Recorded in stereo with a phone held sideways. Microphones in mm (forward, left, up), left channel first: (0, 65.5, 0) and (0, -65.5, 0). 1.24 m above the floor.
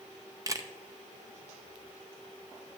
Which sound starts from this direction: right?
A camera shutter, at 0.5 s.